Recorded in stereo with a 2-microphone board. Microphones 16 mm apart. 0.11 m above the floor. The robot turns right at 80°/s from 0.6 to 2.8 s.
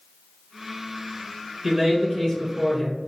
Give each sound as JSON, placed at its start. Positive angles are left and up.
{"t": 1.6, "sound": "a man speaking", "side_deg": 0, "distance_m": 1.8}